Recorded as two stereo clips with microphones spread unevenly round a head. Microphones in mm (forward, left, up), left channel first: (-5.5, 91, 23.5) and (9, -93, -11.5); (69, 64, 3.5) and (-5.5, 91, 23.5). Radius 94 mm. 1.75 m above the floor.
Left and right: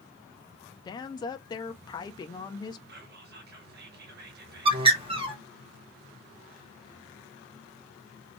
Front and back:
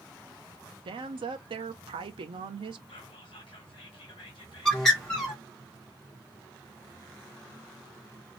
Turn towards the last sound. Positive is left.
turn(degrees=-120)